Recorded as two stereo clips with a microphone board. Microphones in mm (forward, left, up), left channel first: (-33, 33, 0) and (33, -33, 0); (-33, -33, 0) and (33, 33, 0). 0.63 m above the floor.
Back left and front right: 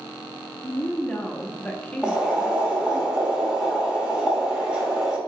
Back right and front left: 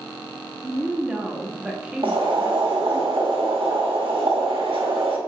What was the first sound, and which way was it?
A woman speaking, 95° left.